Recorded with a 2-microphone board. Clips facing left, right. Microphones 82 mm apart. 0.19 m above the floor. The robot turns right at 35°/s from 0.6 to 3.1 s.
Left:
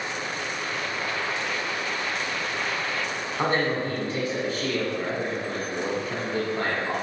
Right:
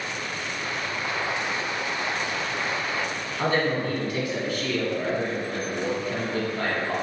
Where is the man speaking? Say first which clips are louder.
Right 1 dB; 35° left (ahead or behind), 1.3 m.